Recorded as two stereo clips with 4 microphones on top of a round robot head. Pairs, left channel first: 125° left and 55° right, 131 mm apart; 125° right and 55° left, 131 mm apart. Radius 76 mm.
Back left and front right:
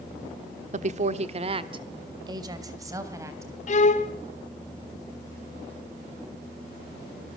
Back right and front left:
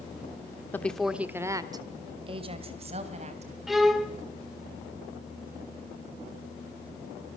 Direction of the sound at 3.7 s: 140° left.